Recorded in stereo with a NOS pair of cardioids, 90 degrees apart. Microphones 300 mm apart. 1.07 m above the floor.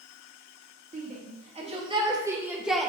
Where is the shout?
30° right, 2.5 m; by 2.9 s 5° left, 1.6 m.